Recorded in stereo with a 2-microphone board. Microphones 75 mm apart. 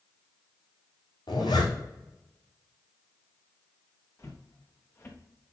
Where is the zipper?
80° left, 4.5 m.